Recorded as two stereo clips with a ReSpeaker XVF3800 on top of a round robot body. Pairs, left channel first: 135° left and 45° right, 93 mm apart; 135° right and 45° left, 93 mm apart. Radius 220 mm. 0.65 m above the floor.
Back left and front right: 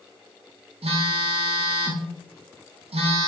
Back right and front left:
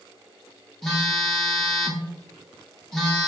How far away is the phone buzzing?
About 0.5 m.